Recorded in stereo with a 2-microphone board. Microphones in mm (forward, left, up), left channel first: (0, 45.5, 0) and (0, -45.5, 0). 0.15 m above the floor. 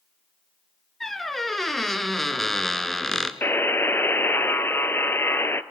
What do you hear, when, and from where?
1.0 s a squeak: centre (ahead or behind), 1.3 m
3.4 s a buzzer: 25° left (ahead or behind), 0.9 m